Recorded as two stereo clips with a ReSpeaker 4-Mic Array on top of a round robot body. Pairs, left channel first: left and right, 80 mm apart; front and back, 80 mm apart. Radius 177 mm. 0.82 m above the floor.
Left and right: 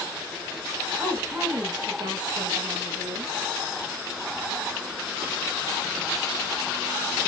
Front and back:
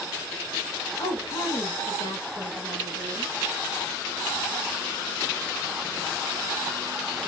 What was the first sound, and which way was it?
A woman speaking, 20° right.